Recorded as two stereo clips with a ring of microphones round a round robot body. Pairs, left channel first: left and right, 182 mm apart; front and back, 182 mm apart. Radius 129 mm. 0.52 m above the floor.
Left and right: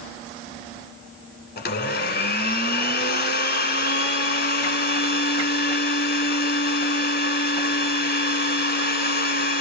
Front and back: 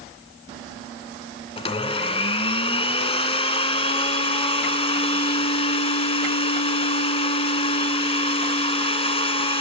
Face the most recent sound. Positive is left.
turn(degrees=60)